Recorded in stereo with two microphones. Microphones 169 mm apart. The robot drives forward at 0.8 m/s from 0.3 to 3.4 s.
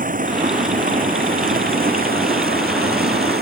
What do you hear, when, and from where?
0.0 s running water: 55° right (ahead or behind); by 3.4 s 70° right (ahead or behind)